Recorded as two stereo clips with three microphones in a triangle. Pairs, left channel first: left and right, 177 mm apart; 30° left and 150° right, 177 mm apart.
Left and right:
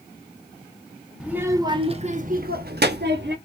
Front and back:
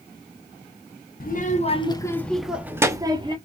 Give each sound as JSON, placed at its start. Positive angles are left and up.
{"t": 1.2, "sound": "a child speaking", "azimuth_deg": -5, "distance_m": 1.0}